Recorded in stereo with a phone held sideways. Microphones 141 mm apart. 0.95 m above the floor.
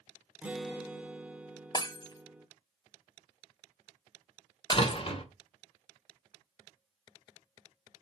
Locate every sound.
0.4 s a guitar: 10° right (ahead or behind), 0.7 m
1.7 s breaking glass: 30° left (ahead or behind), 1.1 m
4.7 s a door slam: 40° left (ahead or behind), 2 m